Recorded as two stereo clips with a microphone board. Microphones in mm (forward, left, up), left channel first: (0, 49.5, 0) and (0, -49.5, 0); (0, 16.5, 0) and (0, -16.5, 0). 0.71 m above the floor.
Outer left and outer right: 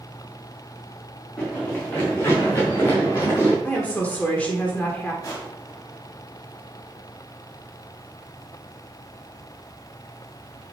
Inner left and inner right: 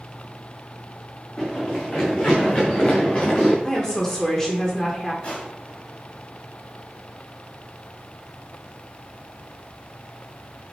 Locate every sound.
1.4 s running footsteps: 15° left (ahead or behind), 4.5 m; by 3.5 s 35° left (ahead or behind), 5 m
3.6 s a woman speaking: 15° left (ahead or behind), 1.5 m
5.2 s crushing: 35° left (ahead or behind), 4 m